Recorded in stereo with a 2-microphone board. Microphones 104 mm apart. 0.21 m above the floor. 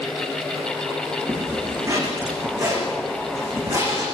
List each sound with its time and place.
1.3 s a zipper: 30° right (ahead or behind), 8 m